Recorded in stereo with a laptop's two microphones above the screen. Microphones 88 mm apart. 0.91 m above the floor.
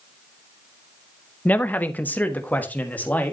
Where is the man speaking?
15° left (ahead or behind), 0.7 m.